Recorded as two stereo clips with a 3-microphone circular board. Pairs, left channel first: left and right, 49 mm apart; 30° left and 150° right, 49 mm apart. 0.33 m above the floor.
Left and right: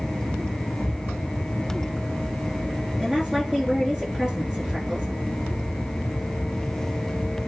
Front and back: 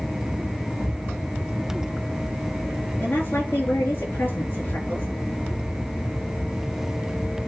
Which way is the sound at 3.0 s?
15° right.